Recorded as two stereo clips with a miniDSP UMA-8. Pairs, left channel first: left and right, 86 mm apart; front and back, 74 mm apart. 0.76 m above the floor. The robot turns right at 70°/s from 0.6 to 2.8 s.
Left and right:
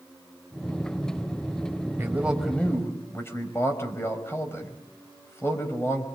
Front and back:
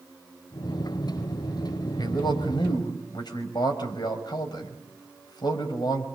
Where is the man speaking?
30° right, 5.5 m; by 6.1 s 25° left, 5.5 m.